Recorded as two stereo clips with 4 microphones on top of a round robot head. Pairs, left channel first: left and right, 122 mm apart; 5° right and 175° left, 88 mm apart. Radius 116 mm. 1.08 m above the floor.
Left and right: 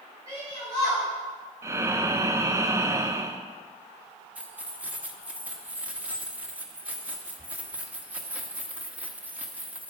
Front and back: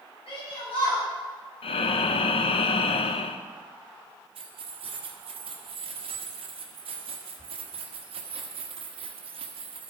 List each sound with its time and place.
0.3 s a shout: 25° right, 6.5 m
1.6 s breathing: 20° right, 0.6 m
4.3 s keys jangling: 170° right, 1.3 m